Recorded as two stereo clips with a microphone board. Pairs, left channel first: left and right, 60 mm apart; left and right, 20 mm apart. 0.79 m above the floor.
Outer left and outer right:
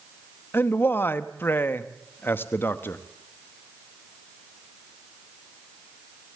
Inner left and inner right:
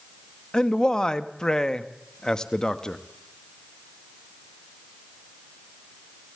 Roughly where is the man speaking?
Left.